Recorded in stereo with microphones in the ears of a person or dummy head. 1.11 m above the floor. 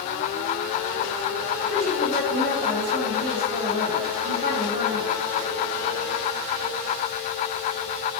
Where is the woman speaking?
35° right (ahead or behind), 1.1 m.